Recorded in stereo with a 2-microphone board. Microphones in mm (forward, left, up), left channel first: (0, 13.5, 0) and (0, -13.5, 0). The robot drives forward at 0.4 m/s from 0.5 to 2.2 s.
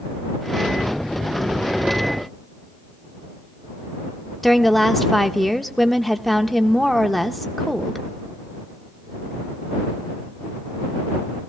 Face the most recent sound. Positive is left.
turn(degrees=5)  # may be behind; listen again after turning